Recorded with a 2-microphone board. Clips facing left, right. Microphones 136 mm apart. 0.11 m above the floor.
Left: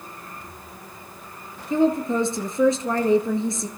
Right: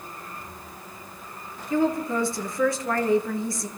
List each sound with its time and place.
1.7 s a woman speaking: 20° left (ahead or behind), 1.6 m